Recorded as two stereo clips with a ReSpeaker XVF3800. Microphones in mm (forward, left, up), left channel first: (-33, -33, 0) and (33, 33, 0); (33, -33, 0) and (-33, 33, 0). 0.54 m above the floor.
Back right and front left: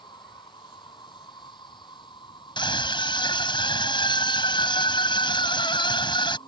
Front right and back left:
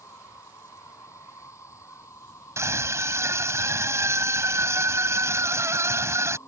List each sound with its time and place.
0.0 s an insect: 100° right
2.6 s a scream: 165° right